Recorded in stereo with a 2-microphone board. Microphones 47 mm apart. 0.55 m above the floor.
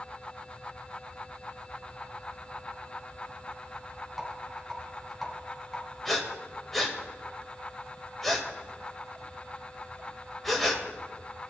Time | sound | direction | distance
4.2 | a rattle | centre (ahead or behind) | 6 m
6.0 | breathing | centre (ahead or behind) | 2.5 m